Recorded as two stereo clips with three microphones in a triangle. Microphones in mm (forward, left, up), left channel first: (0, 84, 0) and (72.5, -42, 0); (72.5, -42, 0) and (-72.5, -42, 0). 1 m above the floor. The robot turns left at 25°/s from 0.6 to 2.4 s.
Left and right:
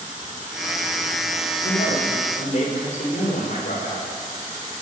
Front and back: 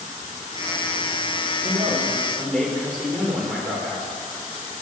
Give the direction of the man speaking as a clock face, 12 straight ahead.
8 o'clock.